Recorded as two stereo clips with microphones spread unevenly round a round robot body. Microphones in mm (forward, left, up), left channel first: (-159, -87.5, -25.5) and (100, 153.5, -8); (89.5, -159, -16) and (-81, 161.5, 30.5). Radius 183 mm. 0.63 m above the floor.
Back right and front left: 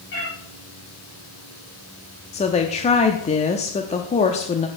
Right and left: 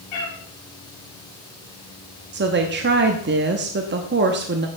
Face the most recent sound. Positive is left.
turn(degrees=170)